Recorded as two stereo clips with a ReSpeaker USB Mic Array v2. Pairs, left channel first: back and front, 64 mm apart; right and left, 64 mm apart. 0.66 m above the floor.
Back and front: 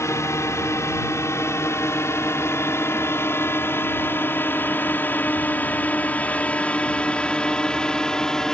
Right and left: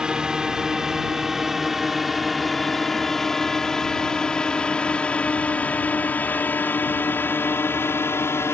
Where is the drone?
165° left; by 8.5 s 105° right.